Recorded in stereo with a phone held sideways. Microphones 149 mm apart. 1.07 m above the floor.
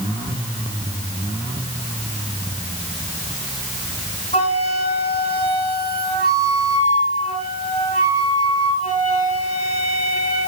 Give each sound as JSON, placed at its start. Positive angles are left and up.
{"t": 4.3, "sound": "a flute", "side_deg": 45, "distance_m": 2.5}